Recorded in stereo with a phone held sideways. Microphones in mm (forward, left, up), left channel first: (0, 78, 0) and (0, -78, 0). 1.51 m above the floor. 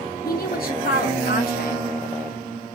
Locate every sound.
0.2 s a woman speaking: 75° left (ahead or behind), 1.0 m